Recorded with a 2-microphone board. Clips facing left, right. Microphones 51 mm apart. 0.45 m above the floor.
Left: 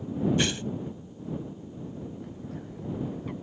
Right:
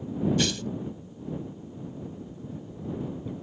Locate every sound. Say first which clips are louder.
0.4 s tearing paper: even; 25° left (ahead or behind)
2.2 s a bird: left 1 dB; 70° left (ahead or behind)